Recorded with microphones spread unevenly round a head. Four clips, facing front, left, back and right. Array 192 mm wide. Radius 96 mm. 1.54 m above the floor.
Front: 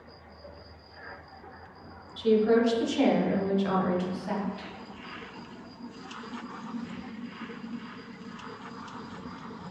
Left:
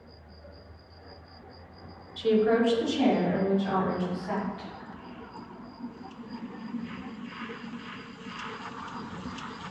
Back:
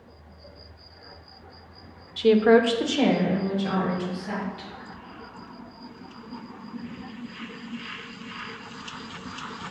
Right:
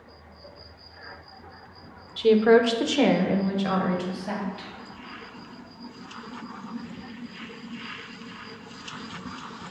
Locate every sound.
2.2 s a woman speaking: 155° right, 1.2 m; by 4.7 s 70° right, 3 m